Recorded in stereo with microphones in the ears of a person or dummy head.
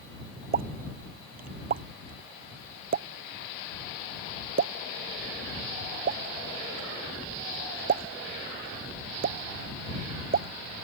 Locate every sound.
0.5 s a pop: 45° right (ahead or behind)